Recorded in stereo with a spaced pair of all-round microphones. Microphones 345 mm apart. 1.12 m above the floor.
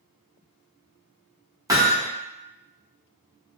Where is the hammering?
10° right (ahead or behind), 0.6 m.